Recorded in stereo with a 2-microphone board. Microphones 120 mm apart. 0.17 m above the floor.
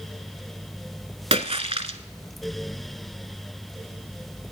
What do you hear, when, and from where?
1.3 s a splash: 55° right (ahead or behind), 0.6 m